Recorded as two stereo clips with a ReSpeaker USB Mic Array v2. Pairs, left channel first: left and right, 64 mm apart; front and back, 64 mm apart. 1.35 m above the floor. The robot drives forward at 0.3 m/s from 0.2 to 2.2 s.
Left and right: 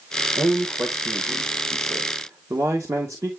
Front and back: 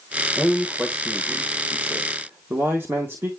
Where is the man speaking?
110° right, 1.6 m; by 3.3 s 125° right, 1.9 m.